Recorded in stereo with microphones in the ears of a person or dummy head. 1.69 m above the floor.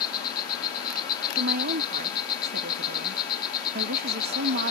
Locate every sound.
0.0 s an insect: 20° left (ahead or behind)
1.4 s a woman speaking: 45° right (ahead or behind)